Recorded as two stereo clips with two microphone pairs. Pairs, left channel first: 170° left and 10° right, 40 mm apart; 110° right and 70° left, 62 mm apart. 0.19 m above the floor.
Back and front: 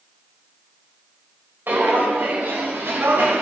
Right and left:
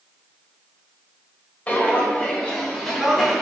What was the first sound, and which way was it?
Footsteps, 40° right.